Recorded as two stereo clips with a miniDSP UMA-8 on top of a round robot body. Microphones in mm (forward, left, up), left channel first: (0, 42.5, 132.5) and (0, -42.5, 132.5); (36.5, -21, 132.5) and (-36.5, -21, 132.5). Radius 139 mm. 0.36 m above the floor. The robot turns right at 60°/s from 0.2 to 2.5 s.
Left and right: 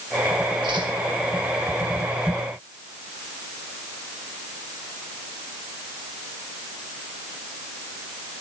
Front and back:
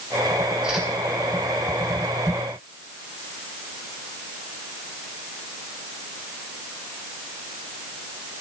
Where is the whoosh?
95° right, 4 m; by 0.9 s 80° right, 4 m.